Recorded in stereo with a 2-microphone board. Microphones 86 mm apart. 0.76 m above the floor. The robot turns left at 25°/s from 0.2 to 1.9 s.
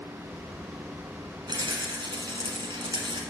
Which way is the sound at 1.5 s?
55° right (ahead or behind).